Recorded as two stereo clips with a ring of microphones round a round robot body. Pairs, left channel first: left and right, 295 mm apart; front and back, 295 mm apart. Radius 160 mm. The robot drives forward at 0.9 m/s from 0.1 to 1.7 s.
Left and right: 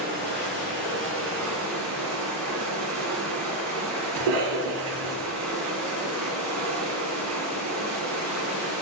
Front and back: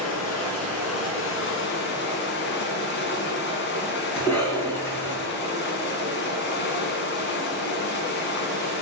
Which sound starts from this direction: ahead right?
Running water, at 0.0 s.